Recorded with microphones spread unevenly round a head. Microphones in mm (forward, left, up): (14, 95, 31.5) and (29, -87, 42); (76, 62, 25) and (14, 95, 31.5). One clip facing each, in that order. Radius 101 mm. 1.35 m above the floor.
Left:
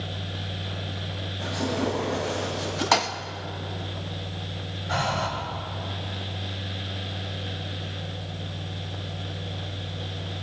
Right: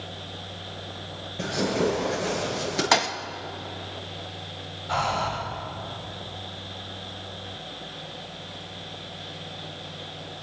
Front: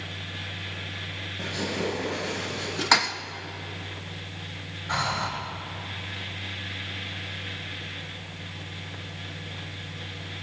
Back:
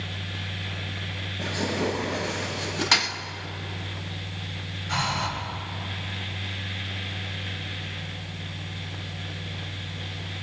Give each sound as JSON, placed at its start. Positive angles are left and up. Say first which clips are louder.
{"t": 1.4, "sound": "tearing paper", "louder": "right 3 dB, back 3 dB", "azimuth_deg": -100, "distance_m": 9.5}
{"t": 2.9, "sound": "a thud", "louder": "left 1 dB, front 5 dB", "azimuth_deg": -25, "distance_m": 0.6}
{"t": 4.9, "sound": "breathing", "louder": "even, even", "azimuth_deg": 15, "distance_m": 7.0}